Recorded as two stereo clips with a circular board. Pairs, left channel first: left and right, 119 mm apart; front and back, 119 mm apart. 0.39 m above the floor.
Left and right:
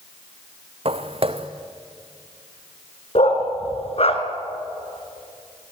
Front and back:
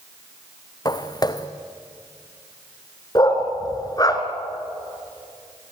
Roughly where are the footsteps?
Ahead right.